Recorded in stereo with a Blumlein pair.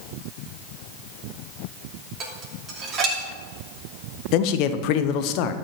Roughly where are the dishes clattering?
Ahead right.